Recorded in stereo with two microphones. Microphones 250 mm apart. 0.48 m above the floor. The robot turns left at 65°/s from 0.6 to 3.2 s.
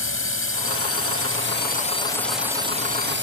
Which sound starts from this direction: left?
A drone, at 0.0 s.